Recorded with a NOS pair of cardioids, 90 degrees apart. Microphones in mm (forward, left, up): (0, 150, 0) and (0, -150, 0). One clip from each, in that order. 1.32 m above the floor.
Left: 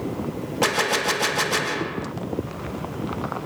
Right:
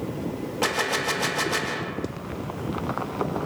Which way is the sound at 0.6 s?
20° left.